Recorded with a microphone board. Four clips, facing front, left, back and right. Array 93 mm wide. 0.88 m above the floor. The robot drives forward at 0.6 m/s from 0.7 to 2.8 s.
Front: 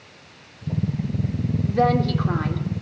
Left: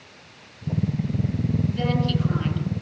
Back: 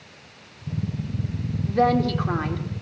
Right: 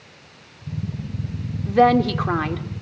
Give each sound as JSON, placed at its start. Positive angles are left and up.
{"t": 1.7, "sound": "a woman speaking", "azimuth_deg": -85, "distance_m": 2.5}